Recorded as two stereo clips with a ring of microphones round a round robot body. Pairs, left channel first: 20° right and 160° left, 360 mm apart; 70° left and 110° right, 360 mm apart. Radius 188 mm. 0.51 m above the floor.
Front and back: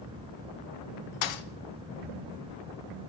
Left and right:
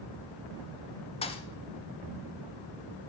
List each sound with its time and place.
1.2 s a thud: 5° right, 0.7 m